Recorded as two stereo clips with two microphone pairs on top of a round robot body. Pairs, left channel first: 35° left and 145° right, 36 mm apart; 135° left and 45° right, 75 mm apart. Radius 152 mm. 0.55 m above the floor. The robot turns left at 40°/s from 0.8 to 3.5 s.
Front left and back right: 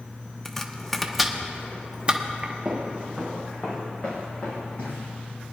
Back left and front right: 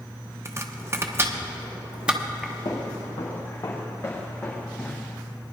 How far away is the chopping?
About 1.2 m.